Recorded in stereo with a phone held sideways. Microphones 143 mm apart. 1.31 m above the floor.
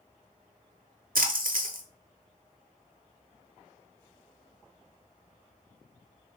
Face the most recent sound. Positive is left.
turn(degrees=-80)